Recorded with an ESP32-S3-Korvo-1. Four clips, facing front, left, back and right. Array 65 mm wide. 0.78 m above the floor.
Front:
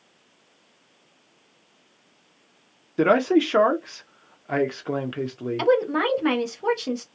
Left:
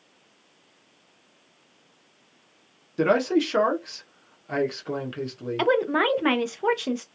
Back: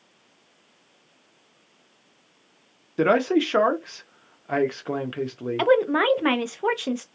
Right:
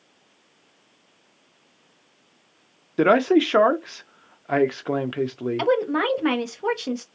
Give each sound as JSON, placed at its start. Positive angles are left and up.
{"t": 3.0, "sound": "a man speaking", "azimuth_deg": -95, "distance_m": 0.5}
{"t": 5.6, "sound": "a woman speaking", "azimuth_deg": 155, "distance_m": 0.5}